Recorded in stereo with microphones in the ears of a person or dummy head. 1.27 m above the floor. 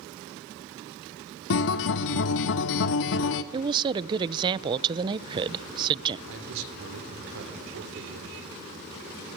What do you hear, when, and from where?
1.5 s a guitar: 65° left (ahead or behind), 1.4 m
3.5 s a woman speaking: 25° right (ahead or behind), 0.8 m
6.3 s a man speaking: 80° right, 3.5 m